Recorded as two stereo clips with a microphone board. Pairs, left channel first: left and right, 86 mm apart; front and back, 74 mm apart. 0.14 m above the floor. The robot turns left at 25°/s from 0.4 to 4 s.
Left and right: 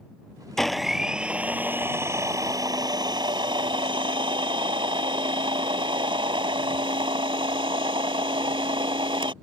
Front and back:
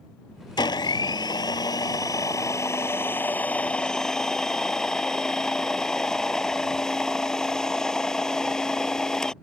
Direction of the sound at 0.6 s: 5° left.